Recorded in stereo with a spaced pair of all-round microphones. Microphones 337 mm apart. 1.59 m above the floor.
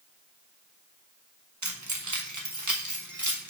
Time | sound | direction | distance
1.6 | keys jangling | 55° right (ahead or behind) | 1.1 m